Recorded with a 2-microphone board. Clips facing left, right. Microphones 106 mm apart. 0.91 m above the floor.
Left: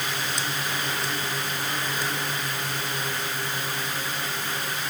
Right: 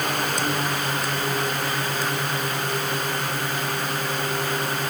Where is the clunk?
No clunk in this recording.